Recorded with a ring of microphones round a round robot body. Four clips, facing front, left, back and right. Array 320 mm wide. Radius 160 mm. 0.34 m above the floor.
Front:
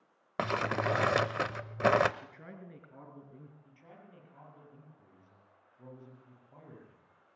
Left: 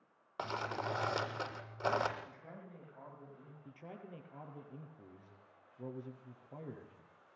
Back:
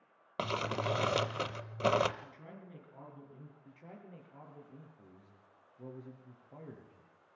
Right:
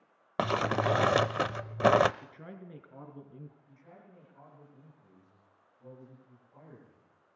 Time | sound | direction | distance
0.4 | crumpling | 75° right | 0.7 m
2.2 | a man speaking | 70° right | 5.5 m
3.6 | a man speaking | 110° left | 7 m